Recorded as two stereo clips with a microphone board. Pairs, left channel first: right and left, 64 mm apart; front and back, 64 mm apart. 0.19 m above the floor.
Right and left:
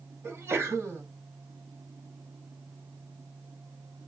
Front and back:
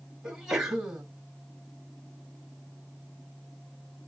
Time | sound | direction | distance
0.2 | a sneeze | 100° left | 1.7 m